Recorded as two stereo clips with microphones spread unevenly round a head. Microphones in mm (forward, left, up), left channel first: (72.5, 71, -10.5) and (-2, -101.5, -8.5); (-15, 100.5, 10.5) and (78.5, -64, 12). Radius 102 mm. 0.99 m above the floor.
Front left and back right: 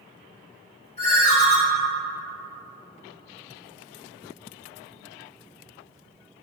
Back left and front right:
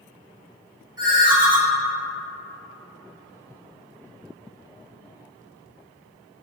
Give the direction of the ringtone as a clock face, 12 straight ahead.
12 o'clock.